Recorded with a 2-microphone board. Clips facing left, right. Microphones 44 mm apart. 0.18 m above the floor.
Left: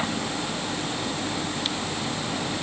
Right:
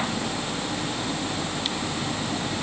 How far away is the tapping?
No tapping in this recording.